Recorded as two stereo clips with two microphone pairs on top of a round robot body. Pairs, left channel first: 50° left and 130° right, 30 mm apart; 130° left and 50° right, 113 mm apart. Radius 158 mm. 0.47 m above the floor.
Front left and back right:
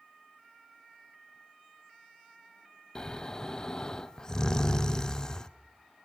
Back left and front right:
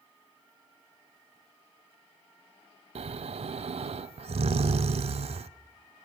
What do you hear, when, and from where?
3.0 s snoring: 20° right, 0.6 m